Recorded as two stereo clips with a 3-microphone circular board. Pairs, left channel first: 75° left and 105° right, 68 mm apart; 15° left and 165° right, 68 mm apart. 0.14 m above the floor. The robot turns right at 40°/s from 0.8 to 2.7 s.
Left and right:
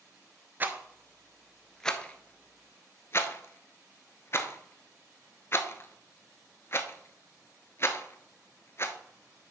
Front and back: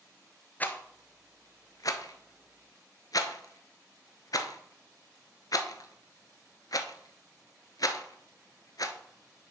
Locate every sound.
0.6 s a rattle: 45° right, 0.7 m; by 9.0 s 30° left, 0.7 m